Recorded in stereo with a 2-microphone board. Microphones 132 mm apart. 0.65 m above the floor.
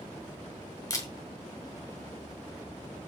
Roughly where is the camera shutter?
Left.